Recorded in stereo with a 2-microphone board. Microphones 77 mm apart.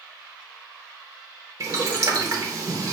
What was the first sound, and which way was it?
Boiling, 50° right (ahead or behind).